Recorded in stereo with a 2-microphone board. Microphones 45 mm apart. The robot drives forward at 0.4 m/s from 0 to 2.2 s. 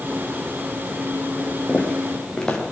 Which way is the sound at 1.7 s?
15° left (ahead or behind).